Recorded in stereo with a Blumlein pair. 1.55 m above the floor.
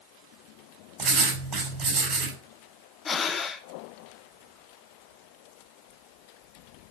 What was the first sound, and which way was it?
Writing, 30° right.